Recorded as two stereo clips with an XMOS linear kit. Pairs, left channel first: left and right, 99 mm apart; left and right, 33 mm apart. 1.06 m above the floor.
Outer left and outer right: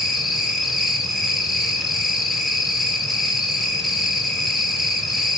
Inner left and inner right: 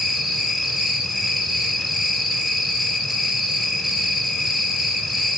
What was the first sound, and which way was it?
An insect, centre (ahead or behind).